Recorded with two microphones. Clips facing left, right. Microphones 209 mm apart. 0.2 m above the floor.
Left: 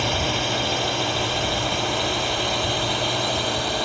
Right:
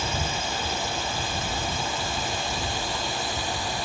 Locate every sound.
0.0 s a drone: 70° left (ahead or behind)